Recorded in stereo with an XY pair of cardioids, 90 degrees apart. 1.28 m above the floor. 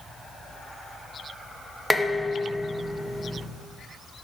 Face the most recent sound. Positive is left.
turn(degrees=10)